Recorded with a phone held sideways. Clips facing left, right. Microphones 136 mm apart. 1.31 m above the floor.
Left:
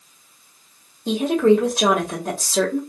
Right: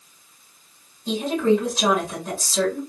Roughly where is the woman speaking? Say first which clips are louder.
Left 4 dB; left.